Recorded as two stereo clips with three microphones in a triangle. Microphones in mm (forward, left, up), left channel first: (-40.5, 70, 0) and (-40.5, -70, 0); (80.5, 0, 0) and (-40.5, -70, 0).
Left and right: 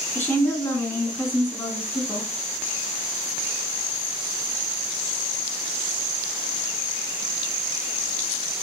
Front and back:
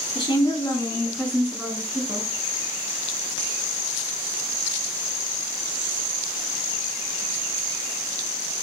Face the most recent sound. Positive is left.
turn(degrees=155)